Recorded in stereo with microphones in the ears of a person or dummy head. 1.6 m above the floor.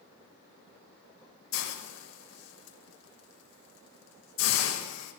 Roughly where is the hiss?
Left.